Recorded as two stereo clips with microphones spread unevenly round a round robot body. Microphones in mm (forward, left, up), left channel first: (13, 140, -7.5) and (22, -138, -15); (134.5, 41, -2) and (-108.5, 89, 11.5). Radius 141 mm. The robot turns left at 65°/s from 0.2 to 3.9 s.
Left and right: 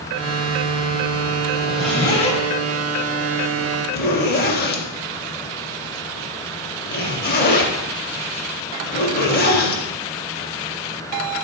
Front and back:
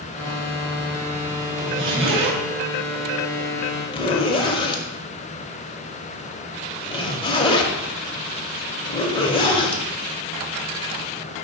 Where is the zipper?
160° right, 0.7 m; by 9.8 s 50° left, 0.7 m.